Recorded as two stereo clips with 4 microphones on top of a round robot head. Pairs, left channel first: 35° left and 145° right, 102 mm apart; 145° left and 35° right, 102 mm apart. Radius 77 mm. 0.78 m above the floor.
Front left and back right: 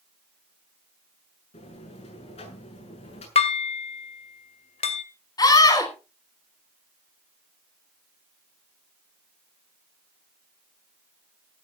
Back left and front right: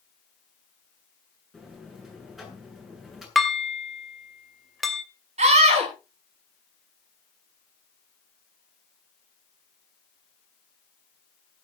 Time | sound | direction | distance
1.5 | a buzzer | 55° left | 8 m
3.4 | dishes clattering | 60° left | 2.5 m
5.4 | a scream | 20° right | 9.5 m